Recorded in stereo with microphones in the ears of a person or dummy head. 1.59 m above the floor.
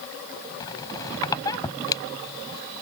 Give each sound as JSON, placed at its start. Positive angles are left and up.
{"t": 0.6, "sound": "a squeak", "side_deg": 20}